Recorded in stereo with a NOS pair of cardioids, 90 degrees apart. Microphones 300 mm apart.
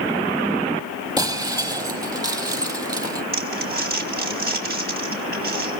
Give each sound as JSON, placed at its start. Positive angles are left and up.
{"t": 1.2, "sound": "breaking glass", "azimuth_deg": -10, "distance_m": 4.5}
{"t": 3.3, "sound": "crumpling", "azimuth_deg": -30, "distance_m": 4.5}